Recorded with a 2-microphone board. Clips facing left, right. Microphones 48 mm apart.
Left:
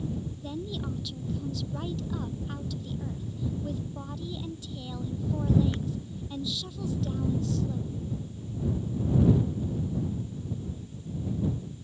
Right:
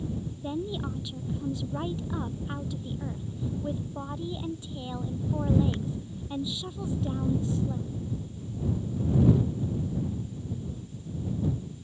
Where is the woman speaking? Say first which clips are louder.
Right 5 dB; 20° right (ahead or behind).